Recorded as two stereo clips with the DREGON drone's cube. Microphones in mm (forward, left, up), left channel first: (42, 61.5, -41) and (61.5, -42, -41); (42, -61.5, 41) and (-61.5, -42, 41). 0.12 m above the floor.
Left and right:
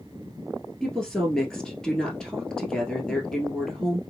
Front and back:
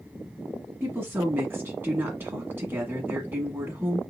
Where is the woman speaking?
170° left, 1.1 m.